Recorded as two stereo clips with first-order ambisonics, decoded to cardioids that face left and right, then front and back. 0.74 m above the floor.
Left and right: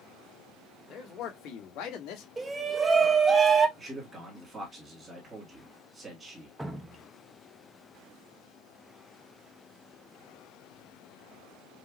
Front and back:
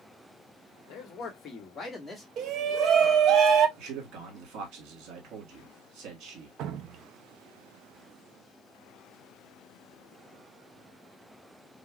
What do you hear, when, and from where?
0.9 s a man speaking: 40° left, 1.3 m; by 2.3 s 80° left, 1.2 m
2.4 s a shout: 155° right, 0.6 m
3.8 s a man speaking: 160° right, 1.7 m
6.6 s dripping: 170° right, 0.5 m